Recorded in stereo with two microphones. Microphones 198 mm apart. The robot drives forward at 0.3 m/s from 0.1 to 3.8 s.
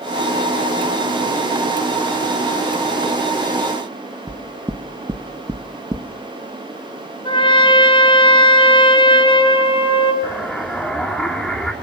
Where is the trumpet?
25° left (ahead or behind), 3 m.